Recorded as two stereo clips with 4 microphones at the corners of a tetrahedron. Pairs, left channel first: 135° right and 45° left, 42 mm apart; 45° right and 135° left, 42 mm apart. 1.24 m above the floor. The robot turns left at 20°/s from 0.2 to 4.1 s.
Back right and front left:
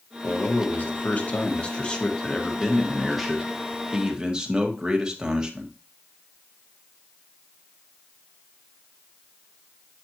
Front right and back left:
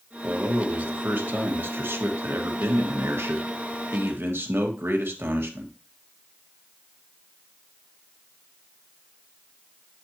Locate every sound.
0.2 s a man speaking: 165° right, 1.5 m; by 5.7 s 115° left, 1.5 m